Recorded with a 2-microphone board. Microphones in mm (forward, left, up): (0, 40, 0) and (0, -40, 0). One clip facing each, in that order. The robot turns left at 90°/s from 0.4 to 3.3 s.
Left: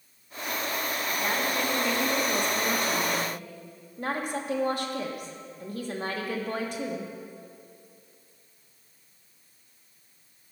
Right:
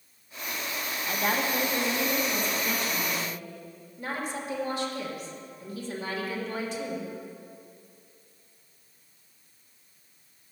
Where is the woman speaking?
85° right, 1.4 m; by 7.1 s 75° left, 1.4 m.